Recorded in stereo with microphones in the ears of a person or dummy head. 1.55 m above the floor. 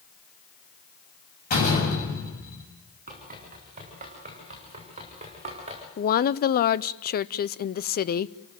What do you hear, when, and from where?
1.5 s a door slam: 50° left (ahead or behind), 7.5 m
3.1 s running footsteps: 40° right (ahead or behind), 8.5 m; by 5.9 s 35° right (ahead or behind), 8 m
6.0 s a woman speaking: 50° left (ahead or behind), 0.7 m